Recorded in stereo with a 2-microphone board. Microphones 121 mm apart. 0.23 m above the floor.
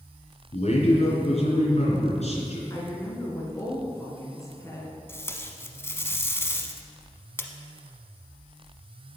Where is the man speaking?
65° left (ahead or behind), 3 m.